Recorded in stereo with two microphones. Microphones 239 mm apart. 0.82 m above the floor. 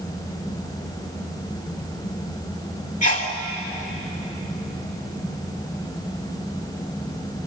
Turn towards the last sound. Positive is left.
turn(degrees=35)  # may be behind; listen again after turning